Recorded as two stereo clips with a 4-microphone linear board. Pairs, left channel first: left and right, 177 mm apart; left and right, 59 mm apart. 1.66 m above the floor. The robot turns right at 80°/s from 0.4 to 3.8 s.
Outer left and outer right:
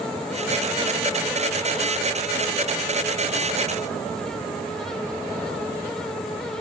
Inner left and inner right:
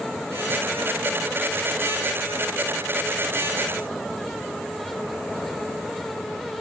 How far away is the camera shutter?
No camera shutter in this recording.